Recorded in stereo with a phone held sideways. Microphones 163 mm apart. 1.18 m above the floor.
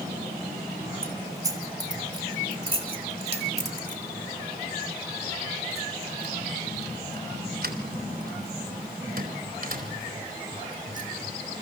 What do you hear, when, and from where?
1.0 s keys jangling: 20° right (ahead or behind), 3.5 m; by 11.6 s 55° right (ahead or behind), 5.5 m